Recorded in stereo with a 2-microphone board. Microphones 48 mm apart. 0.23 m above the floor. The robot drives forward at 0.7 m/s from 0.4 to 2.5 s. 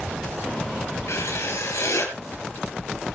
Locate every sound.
1.1 s writing: 70° left (ahead or behind), 4.5 m; by 2.1 s 75° left (ahead or behind), 4.5 m